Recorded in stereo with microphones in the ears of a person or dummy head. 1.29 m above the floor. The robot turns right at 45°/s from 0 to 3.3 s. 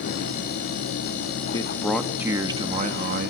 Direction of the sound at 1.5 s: 160° left.